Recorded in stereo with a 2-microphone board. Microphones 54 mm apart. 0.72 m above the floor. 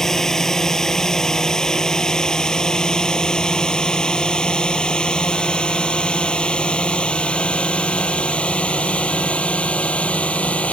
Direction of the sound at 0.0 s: 10° left (ahead or behind).